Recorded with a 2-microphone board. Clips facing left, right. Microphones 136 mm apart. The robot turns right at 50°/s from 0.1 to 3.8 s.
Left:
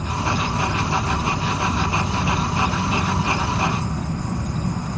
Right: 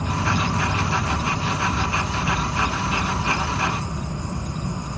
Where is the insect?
70° right, 3.5 m; by 5.0 s 115° left, 3.5 m.